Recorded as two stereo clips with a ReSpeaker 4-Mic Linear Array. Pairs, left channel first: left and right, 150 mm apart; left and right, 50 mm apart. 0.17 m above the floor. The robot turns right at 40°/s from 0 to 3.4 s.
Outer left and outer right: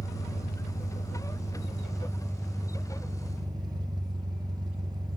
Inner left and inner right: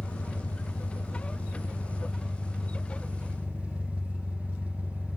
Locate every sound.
0.0 s an engine running: 75° left, 1.6 m; by 5.2 s 150° right, 1.6 m